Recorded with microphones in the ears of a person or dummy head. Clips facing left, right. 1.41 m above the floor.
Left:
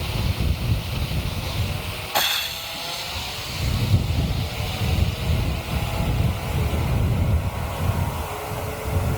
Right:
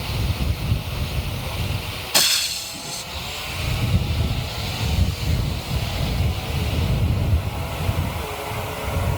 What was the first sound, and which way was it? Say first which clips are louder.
Frying: left 2 dB; 40° right (ahead or behind).